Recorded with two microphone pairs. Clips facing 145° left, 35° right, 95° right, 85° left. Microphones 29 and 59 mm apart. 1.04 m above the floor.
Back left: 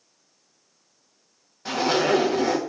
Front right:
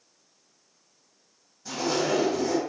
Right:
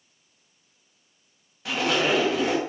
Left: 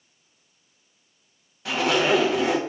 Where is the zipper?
175° left, 1.2 m.